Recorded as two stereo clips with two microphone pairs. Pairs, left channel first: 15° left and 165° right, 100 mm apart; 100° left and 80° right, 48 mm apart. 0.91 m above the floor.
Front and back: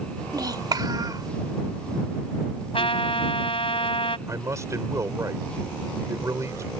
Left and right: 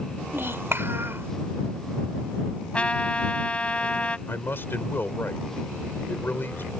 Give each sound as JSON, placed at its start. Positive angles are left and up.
{"t": 0.3, "sound": "a child speaking", "azimuth_deg": -115}
{"t": 2.7, "sound": "a trumpet", "azimuth_deg": 35}
{"t": 4.3, "sound": "a man speaking", "azimuth_deg": 140}